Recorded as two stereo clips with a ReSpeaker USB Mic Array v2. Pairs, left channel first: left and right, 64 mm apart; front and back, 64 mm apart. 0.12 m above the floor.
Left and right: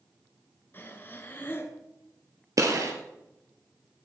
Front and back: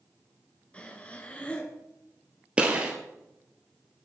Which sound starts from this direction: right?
A gunshot, at 2.6 s.